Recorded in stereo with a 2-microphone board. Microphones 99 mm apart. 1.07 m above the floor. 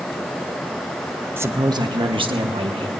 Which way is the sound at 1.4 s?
20° right (ahead or behind).